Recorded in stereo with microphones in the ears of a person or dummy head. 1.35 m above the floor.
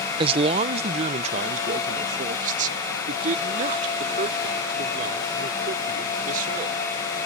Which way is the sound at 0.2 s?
30° right (ahead or behind).